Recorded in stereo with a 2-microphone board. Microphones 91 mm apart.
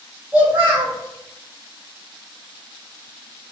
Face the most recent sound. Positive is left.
turn(degrees=-15)  # may be behind; listen again after turning